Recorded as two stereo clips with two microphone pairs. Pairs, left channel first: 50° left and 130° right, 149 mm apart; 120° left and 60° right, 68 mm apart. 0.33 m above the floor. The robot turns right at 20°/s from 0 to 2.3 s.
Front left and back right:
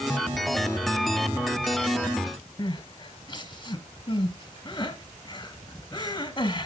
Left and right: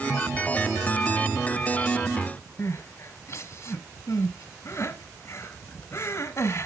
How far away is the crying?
About 1.0 m.